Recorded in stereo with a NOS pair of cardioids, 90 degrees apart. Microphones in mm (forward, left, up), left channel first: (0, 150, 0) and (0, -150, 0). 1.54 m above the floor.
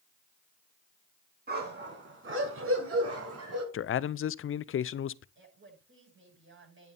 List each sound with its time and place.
1.5 s a dog barking: 35° right, 5.5 m; by 3.6 s 60° right, 6 m
3.7 s a man speaking: 45° left, 0.6 m
5.3 s a woman speaking: 45° right, 9.5 m